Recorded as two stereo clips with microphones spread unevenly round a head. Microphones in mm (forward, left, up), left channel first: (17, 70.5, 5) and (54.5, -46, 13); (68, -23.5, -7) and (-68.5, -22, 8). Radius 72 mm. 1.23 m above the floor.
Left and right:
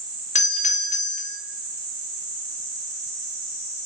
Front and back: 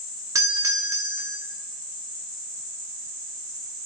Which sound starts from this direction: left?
A doorbell, at 0.3 s.